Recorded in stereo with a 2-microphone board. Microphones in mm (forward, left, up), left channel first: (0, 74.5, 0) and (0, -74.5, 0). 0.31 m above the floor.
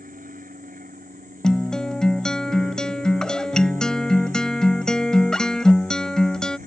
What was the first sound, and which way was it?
An aircraft, 65° right (ahead or behind).